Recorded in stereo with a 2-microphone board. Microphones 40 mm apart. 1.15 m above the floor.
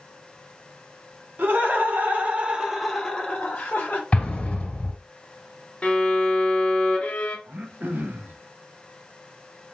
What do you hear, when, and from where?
1.4 s laughter: 60° right (ahead or behind), 1.3 m; by 4.0 s 55° left (ahead or behind), 1.0 m
4.1 s an explosion: 30° left (ahead or behind), 1.2 m
5.8 s a violin: 30° left (ahead or behind), 0.8 m
7.5 s throat clearing: 55° right (ahead or behind), 0.5 m